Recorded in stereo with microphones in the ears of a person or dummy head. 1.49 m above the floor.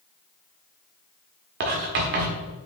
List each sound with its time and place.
1.6 s writing: 40° right (ahead or behind), 1.4 m